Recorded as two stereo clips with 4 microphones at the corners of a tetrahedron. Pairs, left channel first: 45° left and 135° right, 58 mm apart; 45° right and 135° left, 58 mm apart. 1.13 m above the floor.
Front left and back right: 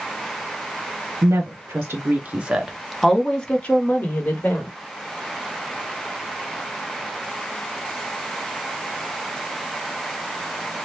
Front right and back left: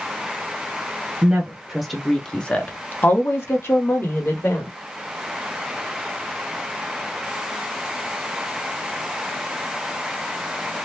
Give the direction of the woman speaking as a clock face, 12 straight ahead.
5 o'clock.